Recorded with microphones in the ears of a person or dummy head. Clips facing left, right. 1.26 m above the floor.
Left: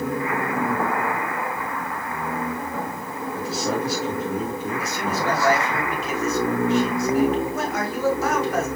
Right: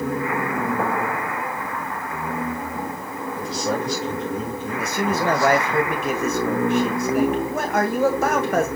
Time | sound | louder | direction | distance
3.4 | a man speaking | even | 10° left (ahead or behind) | 1.9 m
4.8 | a man speaking | right 7 dB | 45° right (ahead or behind) | 1.4 m